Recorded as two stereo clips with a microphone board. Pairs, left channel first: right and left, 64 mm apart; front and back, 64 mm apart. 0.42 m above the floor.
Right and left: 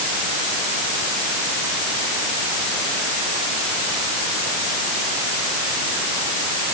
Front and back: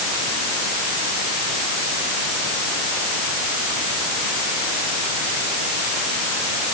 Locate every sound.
Only background noise.